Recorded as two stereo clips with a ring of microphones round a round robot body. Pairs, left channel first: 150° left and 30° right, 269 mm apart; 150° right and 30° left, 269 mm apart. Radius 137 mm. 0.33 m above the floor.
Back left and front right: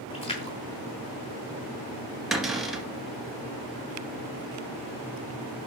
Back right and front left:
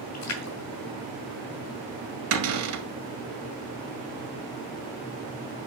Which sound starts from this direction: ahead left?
A cupboard door, at 2.3 s.